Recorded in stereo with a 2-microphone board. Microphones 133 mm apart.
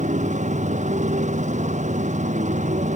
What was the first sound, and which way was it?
A motorcycle, 75° right (ahead or behind).